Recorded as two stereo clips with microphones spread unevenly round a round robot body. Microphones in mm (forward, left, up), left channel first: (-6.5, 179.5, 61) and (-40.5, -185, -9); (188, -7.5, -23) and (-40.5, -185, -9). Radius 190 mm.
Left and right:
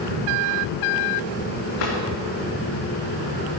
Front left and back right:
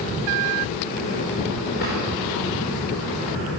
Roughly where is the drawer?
Left.